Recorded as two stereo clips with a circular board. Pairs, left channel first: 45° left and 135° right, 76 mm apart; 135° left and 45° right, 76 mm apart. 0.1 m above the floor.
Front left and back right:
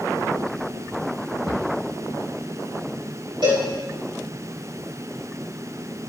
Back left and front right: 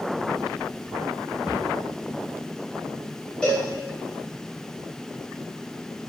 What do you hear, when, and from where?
1.5 s a cupboard door: 125° right, 8 m
3.4 s a cowbell: 150° right, 7 m